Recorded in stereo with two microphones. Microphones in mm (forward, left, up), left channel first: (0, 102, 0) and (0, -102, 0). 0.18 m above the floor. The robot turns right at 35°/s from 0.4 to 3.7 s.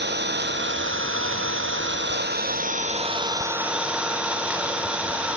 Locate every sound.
0.0 s an engine running: 120° right, 1.8 m; by 5.4 s 5° right, 1.8 m